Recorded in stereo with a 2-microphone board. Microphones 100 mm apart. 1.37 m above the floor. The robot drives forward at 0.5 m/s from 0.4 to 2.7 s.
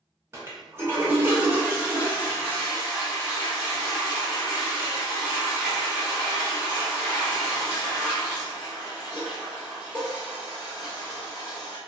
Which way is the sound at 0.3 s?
25° right (ahead or behind).